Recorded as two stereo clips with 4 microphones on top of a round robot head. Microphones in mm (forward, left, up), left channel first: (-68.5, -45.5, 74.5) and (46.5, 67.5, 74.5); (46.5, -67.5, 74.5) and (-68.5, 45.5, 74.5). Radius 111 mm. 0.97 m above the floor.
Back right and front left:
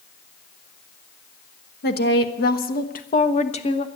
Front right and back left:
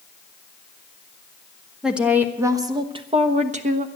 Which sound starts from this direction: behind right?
A woman speaking, at 1.8 s.